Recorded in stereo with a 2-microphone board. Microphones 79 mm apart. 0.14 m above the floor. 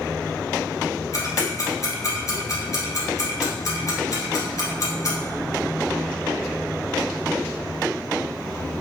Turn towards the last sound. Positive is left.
turn(degrees=45)  # may be behind; listen again after turning